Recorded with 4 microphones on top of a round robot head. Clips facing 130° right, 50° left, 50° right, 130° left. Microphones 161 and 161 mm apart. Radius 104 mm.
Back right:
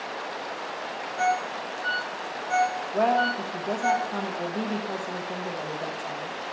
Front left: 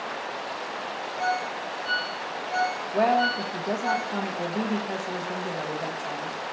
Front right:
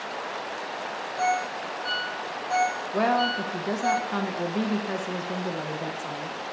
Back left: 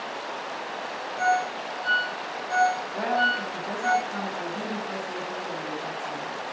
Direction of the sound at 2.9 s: 35° right.